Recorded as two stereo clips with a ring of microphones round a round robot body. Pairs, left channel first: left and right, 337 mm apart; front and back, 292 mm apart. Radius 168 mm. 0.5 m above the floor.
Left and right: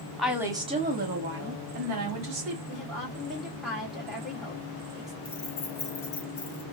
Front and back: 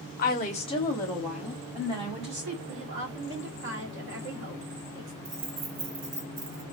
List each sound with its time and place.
0.2 s a woman speaking: straight ahead, 1.0 m; by 2.6 s 115° right, 1.6 m
2.7 s a woman speaking: straight behind, 1.4 m
5.2 s keys jangling: 160° left, 1.4 m